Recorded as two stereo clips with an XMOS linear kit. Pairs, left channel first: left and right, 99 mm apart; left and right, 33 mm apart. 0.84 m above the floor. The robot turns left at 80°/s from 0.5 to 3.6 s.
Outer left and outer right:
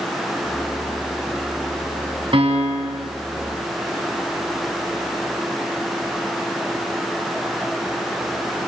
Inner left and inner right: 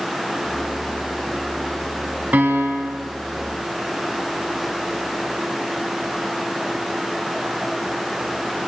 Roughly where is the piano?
Ahead right.